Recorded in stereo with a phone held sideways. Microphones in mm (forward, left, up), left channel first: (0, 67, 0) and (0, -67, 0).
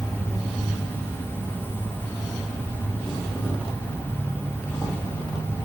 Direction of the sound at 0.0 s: 15° left (ahead or behind).